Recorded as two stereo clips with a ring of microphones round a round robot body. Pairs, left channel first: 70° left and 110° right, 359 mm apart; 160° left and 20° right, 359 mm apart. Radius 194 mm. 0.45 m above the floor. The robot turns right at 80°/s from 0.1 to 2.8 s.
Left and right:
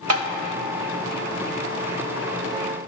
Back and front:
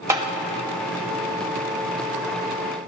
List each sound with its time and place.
0.1 s tapping: 100° right, 0.9 m; by 0.3 s 85° right, 0.9 m